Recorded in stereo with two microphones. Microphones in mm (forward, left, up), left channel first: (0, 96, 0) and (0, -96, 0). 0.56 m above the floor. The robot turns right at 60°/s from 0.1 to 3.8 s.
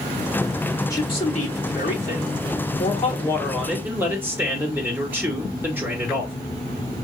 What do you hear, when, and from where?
0.9 s a man speaking: 20° left, 1.8 m; by 6.3 s 170° right, 1.8 m